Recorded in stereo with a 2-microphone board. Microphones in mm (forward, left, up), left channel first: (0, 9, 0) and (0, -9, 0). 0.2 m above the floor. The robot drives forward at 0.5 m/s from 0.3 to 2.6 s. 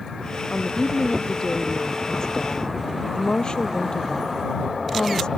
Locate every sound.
0.5 s a woman speaking: 35° left (ahead or behind); by 5.3 s 45° left (ahead or behind)